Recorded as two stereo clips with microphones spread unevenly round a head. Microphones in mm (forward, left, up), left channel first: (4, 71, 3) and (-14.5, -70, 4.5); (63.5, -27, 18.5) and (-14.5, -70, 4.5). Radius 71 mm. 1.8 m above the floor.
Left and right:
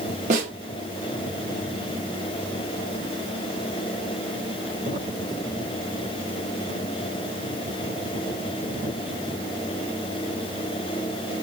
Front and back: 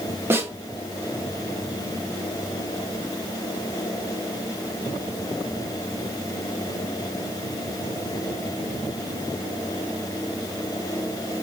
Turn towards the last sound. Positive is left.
turn(degrees=-85)